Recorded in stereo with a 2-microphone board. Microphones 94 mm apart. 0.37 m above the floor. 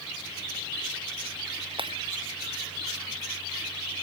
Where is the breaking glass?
65° right (ahead or behind).